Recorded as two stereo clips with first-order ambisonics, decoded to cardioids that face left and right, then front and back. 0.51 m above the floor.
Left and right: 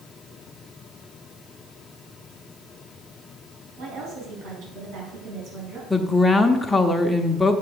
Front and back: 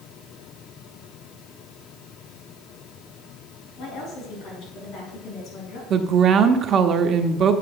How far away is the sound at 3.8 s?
About 5 m.